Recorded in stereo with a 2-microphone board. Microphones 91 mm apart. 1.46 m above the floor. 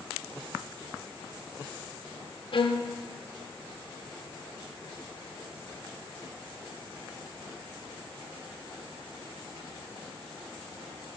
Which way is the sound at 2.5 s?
60° left (ahead or behind).